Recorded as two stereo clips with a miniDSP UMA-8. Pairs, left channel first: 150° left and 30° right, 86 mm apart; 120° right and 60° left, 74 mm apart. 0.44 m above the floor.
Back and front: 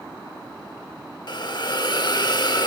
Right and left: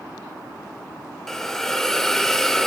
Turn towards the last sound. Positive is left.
turn(degrees=160)